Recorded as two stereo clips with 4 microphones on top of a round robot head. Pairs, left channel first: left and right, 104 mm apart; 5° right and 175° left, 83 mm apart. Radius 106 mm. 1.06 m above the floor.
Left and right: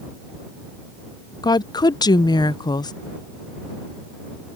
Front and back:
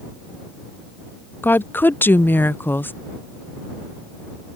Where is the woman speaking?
60° left.